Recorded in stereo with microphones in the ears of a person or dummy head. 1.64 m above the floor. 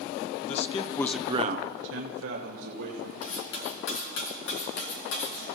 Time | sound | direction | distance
0.4 | a man speaking | 45° left (ahead or behind) | 1.3 m
3.2 | cutlery clinking | 70° left (ahead or behind) | 2.5 m